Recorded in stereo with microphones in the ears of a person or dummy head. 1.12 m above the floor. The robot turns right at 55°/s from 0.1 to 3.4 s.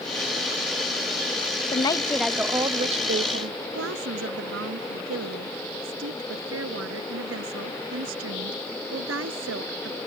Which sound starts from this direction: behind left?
A woman speaking, at 1.7 s.